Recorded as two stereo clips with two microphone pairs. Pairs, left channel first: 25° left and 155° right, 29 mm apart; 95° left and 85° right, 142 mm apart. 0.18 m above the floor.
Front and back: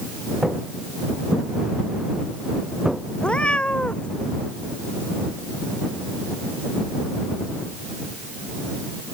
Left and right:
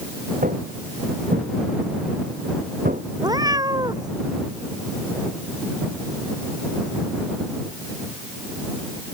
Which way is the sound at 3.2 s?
25° right.